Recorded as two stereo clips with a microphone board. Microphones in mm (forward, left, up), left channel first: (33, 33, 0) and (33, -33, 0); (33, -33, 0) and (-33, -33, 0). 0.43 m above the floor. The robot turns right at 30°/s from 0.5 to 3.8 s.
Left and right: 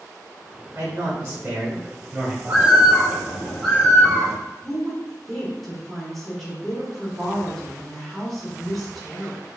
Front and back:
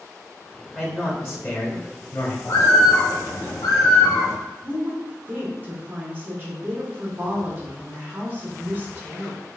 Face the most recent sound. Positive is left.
turn(degrees=175)